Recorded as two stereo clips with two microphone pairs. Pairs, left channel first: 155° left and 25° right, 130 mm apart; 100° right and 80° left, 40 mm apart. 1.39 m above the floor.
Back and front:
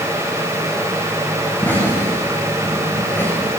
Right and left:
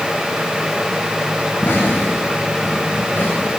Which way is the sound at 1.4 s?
130° right.